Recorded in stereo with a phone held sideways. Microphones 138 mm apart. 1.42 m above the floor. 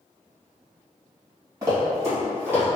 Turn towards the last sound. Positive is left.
turn(degrees=-15)  # may be behind; listen again after turning